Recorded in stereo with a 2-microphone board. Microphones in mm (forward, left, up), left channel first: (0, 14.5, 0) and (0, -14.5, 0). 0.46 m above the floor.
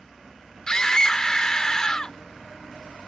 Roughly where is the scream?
Left.